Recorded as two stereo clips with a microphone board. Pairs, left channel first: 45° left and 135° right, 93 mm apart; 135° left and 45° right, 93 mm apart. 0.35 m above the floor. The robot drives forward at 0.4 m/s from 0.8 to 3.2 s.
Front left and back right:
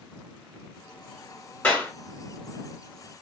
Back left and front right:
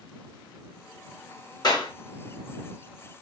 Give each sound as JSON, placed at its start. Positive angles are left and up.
{"t": 1.6, "sound": "a clap", "azimuth_deg": 110, "distance_m": 1.1}